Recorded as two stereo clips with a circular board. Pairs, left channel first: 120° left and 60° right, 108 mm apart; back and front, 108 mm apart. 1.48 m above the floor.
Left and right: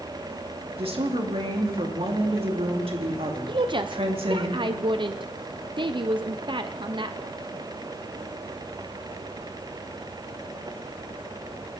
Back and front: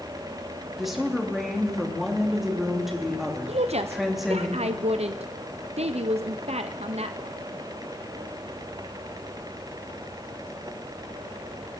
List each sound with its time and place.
0.8 s a woman speaking: 90° right, 2.5 m
3.5 s a woman speaking: 15° right, 0.5 m